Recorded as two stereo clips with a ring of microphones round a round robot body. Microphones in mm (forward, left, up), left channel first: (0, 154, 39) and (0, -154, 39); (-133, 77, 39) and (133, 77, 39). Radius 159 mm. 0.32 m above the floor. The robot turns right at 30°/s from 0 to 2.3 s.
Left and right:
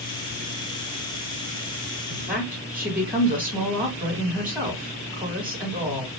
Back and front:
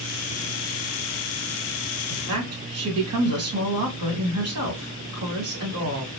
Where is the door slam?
No door slam in this recording.